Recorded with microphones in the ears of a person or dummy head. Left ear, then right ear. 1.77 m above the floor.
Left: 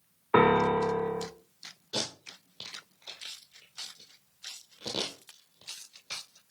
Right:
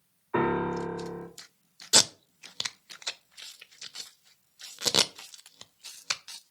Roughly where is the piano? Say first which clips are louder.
Left 5 dB; left.